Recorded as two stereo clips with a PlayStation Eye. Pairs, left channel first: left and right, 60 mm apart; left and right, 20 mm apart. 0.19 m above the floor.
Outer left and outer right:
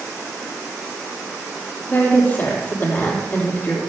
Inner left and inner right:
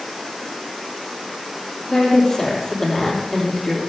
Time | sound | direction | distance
1.9 | a woman speaking | 30° left (ahead or behind) | 5.5 m